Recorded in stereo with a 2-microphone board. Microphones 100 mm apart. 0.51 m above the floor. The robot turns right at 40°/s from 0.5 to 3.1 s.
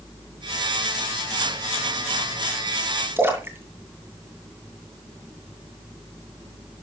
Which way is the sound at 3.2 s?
25° right (ahead or behind).